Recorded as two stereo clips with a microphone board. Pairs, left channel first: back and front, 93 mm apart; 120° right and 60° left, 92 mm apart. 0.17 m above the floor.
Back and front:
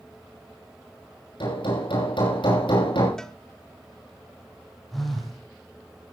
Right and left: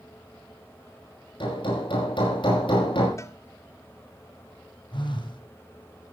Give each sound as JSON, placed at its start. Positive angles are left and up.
{"t": 1.4, "sound": "hammering", "azimuth_deg": -145, "distance_m": 8.5}
{"t": 3.2, "sound": "a cowbell", "azimuth_deg": -100, "distance_m": 1.0}
{"t": 4.9, "sound": "a phone buzzing", "azimuth_deg": -90, "distance_m": 5.0}